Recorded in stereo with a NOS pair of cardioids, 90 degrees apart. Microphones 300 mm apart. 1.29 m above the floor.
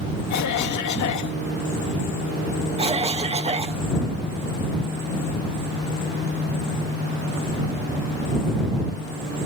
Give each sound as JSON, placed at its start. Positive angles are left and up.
{"t": 0.3, "sound": "a cough", "azimuth_deg": 70}
{"t": 2.8, "sound": "a cough", "azimuth_deg": -20}